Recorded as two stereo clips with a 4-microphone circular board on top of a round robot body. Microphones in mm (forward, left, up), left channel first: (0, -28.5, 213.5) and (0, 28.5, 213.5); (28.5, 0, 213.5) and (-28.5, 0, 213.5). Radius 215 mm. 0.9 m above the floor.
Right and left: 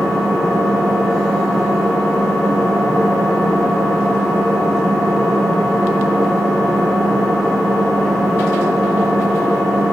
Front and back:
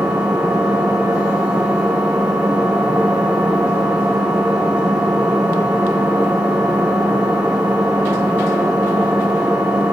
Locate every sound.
0.0 s an engine running: 175° right, 2.5 m